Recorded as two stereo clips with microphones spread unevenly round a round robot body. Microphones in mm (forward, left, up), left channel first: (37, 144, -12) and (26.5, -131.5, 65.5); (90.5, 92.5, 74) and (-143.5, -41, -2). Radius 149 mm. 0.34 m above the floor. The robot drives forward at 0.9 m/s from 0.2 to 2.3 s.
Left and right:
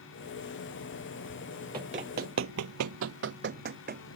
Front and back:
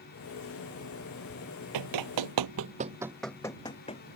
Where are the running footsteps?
155° right; by 4.0 s 35° right.